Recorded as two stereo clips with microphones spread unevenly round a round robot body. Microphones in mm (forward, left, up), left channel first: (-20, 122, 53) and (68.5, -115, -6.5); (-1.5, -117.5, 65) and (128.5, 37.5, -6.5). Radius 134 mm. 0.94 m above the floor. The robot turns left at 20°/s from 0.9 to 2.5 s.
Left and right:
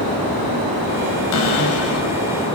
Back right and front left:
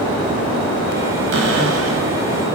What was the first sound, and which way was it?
A cupboard door, 85° left.